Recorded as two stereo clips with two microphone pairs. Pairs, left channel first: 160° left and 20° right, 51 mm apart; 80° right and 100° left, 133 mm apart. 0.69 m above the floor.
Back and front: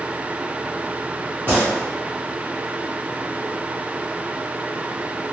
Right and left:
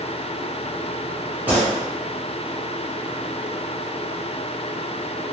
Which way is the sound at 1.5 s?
20° left.